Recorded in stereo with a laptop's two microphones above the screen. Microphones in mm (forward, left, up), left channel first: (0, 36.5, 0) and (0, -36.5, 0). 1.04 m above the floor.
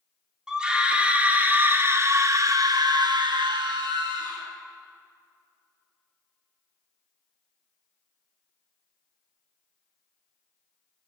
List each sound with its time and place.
0.5 s a scream: 10° right (ahead or behind), 2 m; by 4.5 s 70° right (ahead or behind), 1.5 m